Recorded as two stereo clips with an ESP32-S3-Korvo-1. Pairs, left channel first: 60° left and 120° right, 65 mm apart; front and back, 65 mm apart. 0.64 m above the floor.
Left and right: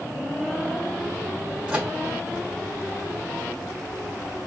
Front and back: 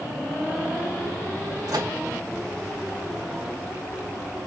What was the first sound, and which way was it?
A microwave, 165° left.